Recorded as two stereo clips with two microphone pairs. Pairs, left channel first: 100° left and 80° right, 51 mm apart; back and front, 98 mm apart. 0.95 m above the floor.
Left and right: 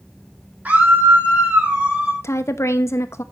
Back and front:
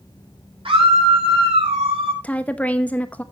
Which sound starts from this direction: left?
A woman speaking, at 2.2 s.